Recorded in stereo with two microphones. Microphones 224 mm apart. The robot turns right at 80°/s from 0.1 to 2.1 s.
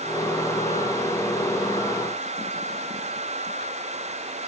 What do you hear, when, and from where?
Only background noise.